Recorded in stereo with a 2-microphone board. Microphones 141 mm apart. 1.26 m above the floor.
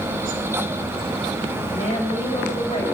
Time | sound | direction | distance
1.7 | a woman speaking | 45° left (ahead or behind) | 5.5 m